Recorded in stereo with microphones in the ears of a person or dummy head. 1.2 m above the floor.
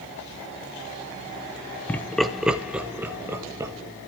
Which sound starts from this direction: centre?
Laughter, at 1.9 s.